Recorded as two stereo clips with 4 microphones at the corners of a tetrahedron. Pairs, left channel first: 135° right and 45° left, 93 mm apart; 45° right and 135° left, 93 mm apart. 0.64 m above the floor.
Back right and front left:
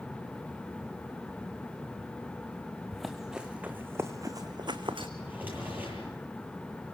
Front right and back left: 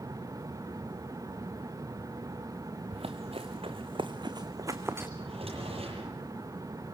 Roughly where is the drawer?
Behind left.